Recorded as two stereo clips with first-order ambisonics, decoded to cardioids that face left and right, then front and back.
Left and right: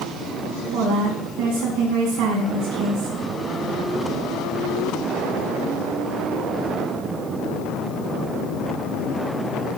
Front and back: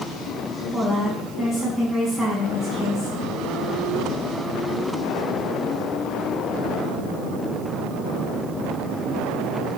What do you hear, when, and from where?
0.7 s a woman speaking: 70° right, 3 m